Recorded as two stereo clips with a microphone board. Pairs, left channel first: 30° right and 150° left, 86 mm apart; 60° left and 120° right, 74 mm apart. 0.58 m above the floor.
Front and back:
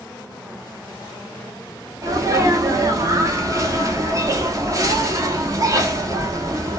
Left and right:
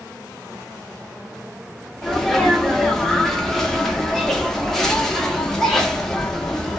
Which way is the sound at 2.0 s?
145° left.